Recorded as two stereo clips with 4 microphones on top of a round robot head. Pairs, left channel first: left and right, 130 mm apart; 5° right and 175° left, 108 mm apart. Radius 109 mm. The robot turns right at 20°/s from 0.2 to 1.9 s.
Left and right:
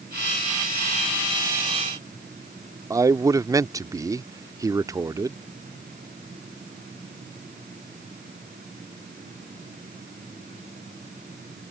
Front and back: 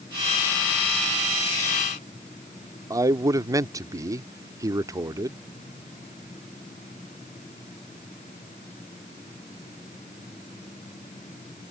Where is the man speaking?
145° right.